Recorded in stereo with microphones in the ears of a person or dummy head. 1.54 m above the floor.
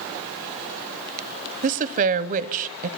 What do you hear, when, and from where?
1.6 s a woman speaking: 45° right (ahead or behind), 0.7 m